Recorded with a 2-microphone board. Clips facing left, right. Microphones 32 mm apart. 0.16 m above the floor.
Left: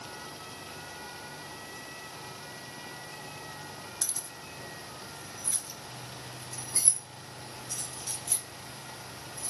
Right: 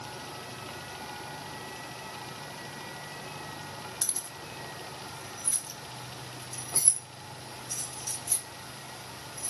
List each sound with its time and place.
4.0 s keys jangling: 15° right (ahead or behind), 1.3 m; by 9.5 s 45° left (ahead or behind), 3.5 m